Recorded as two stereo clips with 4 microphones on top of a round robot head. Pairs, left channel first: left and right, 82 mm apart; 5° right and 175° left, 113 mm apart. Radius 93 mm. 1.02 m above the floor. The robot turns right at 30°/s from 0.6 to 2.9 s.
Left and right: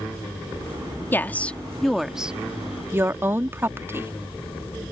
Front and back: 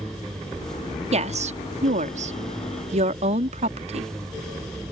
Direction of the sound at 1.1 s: 155° left.